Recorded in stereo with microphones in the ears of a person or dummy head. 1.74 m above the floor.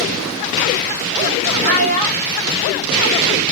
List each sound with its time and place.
1.6 s a child speaking: 35° right (ahead or behind), 1.9 m